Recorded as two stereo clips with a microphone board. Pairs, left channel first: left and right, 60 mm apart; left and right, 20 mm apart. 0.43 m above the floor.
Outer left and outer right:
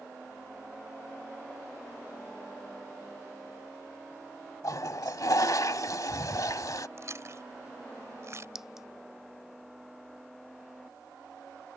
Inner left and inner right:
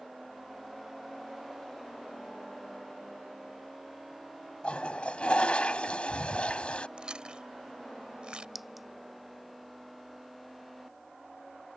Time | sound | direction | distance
4.6 | a toilet flushing | 75° left (ahead or behind) | ?
7.0 | chewing | 55° right (ahead or behind) | ?
8.6 | a clink | 10° right (ahead or behind) | ?